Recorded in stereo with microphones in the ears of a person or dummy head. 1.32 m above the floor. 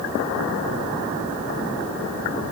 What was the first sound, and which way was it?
Only background noise.